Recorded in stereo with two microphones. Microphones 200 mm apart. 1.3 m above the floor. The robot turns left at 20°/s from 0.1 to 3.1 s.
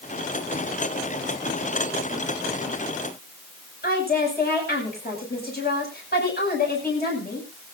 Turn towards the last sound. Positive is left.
turn(degrees=55)  # may be behind; listen again after turning